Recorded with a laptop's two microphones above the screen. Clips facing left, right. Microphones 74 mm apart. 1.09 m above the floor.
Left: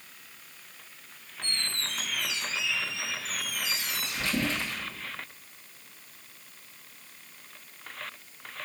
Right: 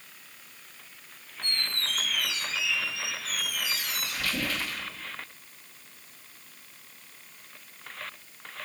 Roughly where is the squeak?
Left.